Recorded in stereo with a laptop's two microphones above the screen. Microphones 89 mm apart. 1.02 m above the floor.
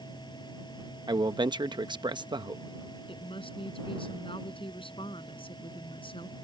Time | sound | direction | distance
0.0 | a fan | 55° left (ahead or behind) | ?
1.1 | a man speaking | 60° right (ahead or behind) | ?
3.1 | a woman speaking | 85° left | ?